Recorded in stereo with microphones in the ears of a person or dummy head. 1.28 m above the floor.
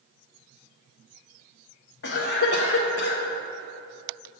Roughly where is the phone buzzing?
No phone buzzing in this recording.